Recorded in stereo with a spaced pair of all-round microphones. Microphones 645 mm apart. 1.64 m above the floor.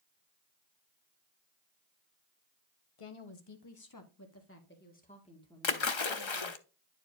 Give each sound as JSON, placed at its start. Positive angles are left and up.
{"t": 3.0, "sound": "a woman speaking", "side_deg": 55, "distance_m": 1.0}
{"t": 5.6, "sound": "a splash", "side_deg": 45, "distance_m": 0.7}